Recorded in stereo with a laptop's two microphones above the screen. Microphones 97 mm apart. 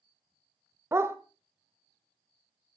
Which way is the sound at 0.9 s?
25° right (ahead or behind).